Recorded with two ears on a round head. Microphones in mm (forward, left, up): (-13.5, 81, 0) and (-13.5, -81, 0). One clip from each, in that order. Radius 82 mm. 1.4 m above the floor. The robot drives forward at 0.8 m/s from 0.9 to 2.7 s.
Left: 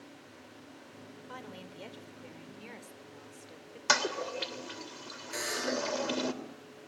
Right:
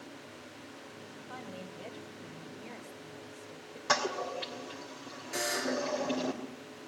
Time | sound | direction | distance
1.3 | a woman speaking | 60° left (ahead or behind) | 4.5 m
3.9 | a toilet flushing | 70° left (ahead or behind) | 3 m
5.3 | a buzzer | 10° left (ahead or behind) | 7.5 m